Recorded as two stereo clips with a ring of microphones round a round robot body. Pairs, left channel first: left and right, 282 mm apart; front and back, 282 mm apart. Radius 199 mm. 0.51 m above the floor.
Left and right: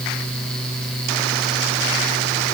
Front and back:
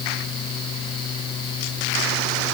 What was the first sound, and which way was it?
Only background noise.